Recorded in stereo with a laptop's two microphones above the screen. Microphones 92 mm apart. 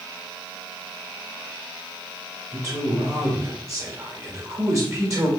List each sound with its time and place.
2.5 s a man speaking: 35° right (ahead or behind), 1.7 m